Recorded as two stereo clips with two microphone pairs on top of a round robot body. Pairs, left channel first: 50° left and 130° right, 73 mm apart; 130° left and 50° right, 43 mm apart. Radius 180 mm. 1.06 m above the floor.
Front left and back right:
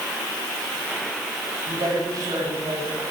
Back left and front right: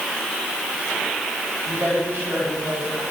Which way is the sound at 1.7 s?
90° right.